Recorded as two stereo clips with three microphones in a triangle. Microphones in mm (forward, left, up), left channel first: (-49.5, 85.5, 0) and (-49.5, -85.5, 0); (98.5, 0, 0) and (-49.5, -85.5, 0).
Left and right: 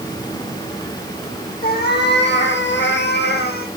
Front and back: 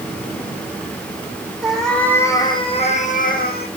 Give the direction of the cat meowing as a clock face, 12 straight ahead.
8 o'clock.